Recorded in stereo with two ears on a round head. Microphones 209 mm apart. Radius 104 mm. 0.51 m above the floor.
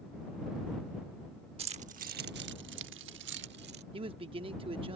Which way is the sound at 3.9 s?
25° right (ahead or behind).